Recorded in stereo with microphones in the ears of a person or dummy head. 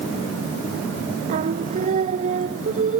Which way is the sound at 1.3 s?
40° right (ahead or behind).